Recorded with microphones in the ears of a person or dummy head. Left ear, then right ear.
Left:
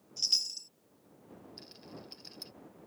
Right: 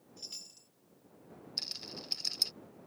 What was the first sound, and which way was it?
A chime, 45° left (ahead or behind).